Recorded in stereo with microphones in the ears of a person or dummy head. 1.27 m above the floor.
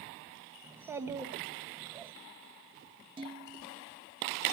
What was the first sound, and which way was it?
A child speaking, 15° right (ahead or behind).